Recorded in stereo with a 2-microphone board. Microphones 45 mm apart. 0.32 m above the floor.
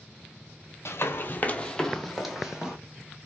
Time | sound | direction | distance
0.8 | running footsteps | 65° left (ahead or behind) | 0.6 m